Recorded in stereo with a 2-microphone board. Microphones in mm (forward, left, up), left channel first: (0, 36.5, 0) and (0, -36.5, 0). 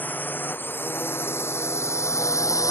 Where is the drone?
25° left (ahead or behind); by 2.7 s 50° left (ahead or behind).